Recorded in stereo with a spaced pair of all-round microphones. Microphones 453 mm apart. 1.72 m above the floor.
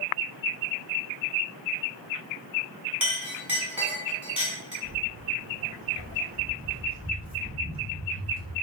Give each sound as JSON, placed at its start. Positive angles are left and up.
{"t": 3.0, "sound": "a clink", "side_deg": -5, "distance_m": 1.3}
{"t": 4.8, "sound": "footsteps", "side_deg": -30, "distance_m": 2.0}